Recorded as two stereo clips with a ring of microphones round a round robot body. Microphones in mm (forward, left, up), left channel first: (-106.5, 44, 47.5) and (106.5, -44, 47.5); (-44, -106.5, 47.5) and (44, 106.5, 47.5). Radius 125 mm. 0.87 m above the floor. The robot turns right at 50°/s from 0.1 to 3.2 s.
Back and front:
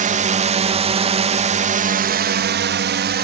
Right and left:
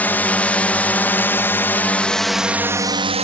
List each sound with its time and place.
0.0 s a drone: 35° right; by 3.2 s 10° left